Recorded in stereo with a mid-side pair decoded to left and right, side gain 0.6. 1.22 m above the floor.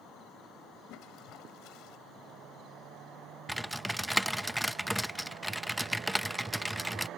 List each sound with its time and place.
0.9 s a toilet flushing: 65° left
3.5 s typing on a keyboard: straight ahead